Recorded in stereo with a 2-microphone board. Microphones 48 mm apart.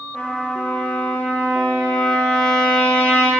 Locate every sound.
0.1 s a trumpet: 20° left (ahead or behind), 2.5 m